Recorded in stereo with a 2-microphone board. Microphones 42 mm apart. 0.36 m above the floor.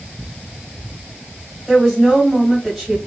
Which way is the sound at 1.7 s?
5° left (ahead or behind).